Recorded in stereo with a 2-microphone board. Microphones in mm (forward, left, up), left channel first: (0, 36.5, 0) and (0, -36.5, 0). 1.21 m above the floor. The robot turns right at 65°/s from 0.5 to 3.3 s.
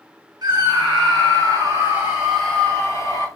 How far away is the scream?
About 1.8 m.